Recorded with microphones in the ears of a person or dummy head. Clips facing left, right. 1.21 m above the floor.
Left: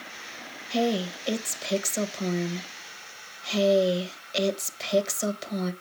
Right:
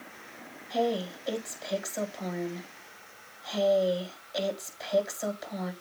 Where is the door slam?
I don't hear a door slam.